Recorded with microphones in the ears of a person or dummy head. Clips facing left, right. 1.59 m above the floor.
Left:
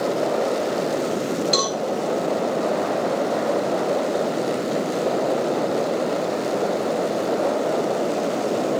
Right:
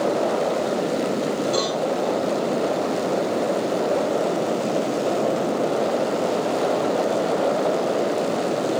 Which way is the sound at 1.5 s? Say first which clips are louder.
Right 1 dB; 50° left (ahead or behind).